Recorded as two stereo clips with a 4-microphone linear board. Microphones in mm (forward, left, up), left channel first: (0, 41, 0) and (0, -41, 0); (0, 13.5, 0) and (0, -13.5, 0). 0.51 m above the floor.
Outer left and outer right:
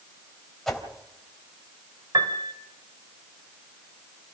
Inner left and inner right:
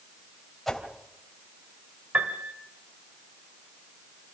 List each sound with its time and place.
0.7 s a whoosh: 5° left (ahead or behind), 3 m
2.1 s a piano: 60° right (ahead or behind), 2.5 m